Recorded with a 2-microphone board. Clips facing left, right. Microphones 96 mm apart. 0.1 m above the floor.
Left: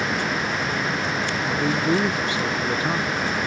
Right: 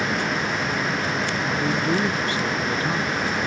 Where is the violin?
I don't hear a violin.